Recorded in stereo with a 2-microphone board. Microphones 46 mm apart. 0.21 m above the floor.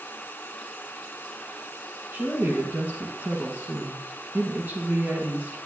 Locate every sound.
2.1 s a woman speaking: 50° right (ahead or behind), 1.8 m